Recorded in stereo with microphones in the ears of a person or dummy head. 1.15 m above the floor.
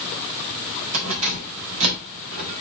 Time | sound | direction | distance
0.9 | keys jangling | 90° right | 4.5 m